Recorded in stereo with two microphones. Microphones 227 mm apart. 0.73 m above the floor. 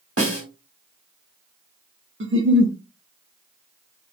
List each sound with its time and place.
0.2 s a snare drum: 70° right (ahead or behind), 1.2 m
2.2 s a giggle: 60° right (ahead or behind), 0.6 m